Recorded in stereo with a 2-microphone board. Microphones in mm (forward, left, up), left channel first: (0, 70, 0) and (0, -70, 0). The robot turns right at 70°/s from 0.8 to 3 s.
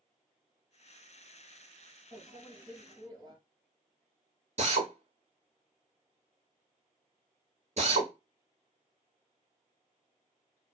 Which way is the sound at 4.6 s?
55° right (ahead or behind).